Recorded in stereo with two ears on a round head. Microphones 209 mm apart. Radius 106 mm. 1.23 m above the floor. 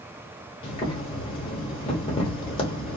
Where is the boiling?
25° left (ahead or behind), 1.0 m.